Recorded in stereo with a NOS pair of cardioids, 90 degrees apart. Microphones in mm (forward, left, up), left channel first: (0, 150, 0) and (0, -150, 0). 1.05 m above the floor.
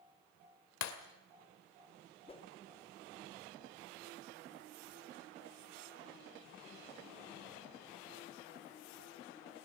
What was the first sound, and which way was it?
Breaking glass, 70° left.